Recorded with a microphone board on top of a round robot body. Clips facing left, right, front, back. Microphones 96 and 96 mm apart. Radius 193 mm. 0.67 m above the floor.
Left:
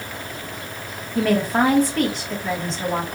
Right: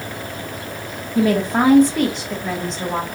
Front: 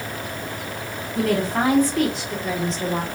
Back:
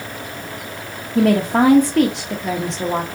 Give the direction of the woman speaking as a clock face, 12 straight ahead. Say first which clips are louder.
Right 2 dB, back 7 dB; 5 o'clock.